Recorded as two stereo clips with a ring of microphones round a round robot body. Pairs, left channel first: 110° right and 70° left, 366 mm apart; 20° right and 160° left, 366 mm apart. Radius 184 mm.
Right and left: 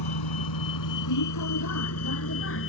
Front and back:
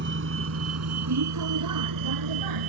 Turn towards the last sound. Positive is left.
turn(degrees=-170)